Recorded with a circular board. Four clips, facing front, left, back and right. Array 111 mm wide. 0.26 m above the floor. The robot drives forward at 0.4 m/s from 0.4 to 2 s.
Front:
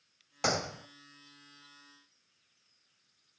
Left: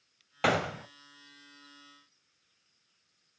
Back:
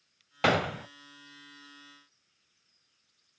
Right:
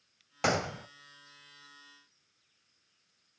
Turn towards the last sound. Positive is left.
turn(degrees=175)